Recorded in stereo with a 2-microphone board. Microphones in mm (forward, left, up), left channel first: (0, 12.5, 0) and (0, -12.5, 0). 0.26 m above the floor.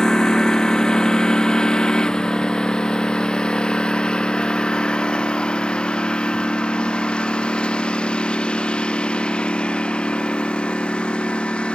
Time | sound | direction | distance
0.0 | a lawn mower | 30° left (ahead or behind) | ?